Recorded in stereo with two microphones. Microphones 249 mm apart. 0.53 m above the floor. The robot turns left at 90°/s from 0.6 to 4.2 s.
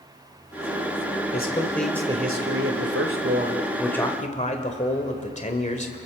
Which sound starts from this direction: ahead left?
A man speaking, at 1.3 s.